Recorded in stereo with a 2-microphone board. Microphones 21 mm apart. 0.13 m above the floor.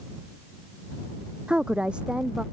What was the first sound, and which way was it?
A woman speaking, 55° right (ahead or behind).